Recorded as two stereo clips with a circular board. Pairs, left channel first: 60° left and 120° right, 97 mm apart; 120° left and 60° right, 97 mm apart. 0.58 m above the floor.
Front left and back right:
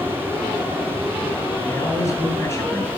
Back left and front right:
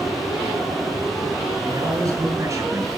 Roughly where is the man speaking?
Ahead.